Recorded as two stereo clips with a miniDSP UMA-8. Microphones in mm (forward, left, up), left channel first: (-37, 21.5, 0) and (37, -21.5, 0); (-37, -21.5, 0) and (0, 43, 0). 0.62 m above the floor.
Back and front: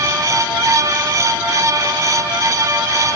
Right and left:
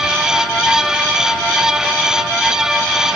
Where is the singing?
No singing in this recording.